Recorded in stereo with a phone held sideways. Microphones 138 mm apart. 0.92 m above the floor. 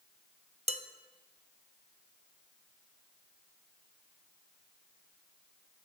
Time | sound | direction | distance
0.7 | dishes clattering | 50° right (ahead or behind) | 0.5 m